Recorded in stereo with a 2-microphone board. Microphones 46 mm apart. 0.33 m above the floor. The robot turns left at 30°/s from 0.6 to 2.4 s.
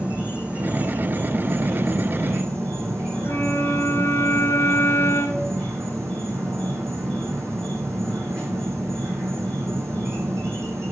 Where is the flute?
60° left (ahead or behind), 3 m.